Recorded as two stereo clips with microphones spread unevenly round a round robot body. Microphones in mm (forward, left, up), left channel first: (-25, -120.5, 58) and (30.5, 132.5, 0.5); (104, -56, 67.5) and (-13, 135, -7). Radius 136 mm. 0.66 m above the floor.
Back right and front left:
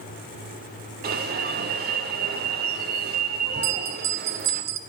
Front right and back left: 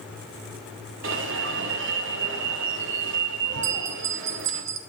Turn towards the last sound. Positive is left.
turn(degrees=110)